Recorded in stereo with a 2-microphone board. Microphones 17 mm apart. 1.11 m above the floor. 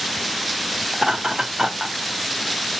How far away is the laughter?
About 2.0 m.